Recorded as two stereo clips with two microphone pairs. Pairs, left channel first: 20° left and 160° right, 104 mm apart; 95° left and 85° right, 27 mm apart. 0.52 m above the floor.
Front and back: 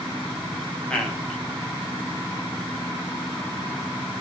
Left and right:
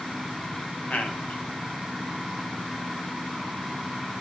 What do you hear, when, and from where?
0.9 s a man speaking: 100° left, 5 m